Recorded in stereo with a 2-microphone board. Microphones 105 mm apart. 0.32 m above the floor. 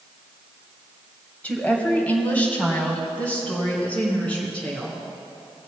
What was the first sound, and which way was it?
A woman speaking, 15° left (ahead or behind).